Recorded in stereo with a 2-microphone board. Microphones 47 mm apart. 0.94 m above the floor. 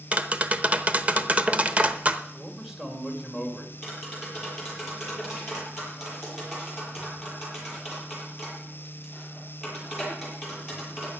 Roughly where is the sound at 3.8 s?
Centre.